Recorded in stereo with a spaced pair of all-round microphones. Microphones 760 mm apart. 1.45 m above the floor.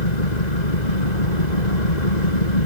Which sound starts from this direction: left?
An engine running, at 0.0 s.